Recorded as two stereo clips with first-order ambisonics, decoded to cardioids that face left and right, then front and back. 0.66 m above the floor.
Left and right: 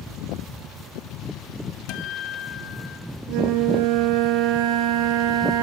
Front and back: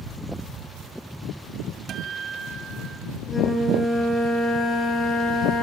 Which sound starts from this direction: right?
A flute, at 3.3 s.